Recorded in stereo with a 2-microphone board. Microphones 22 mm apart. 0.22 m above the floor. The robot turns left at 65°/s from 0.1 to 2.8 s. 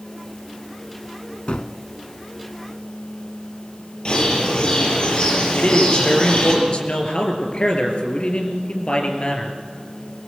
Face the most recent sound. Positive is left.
turn(degrees=60)  # may be behind; listen again after turning